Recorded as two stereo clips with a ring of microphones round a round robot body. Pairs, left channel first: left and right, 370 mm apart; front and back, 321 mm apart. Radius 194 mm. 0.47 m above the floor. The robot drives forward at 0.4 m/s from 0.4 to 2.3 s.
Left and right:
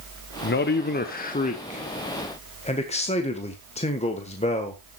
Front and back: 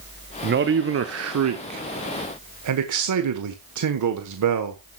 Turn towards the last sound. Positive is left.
turn(degrees=160)